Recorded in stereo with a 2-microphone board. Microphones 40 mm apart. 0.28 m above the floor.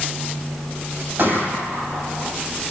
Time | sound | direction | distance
1.2 | a gunshot | 50° right (ahead or behind) | 6 m